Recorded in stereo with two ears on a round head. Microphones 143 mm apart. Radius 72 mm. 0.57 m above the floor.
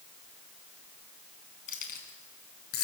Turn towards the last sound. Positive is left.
turn(degrees=70)  # may be behind; listen again after turning